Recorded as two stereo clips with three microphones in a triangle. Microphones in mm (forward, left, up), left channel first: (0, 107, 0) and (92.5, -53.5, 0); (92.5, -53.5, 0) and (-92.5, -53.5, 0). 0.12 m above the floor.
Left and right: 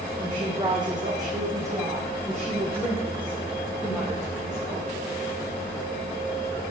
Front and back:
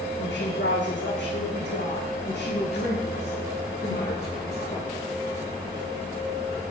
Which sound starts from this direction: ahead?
A woman speaking, at 0.2 s.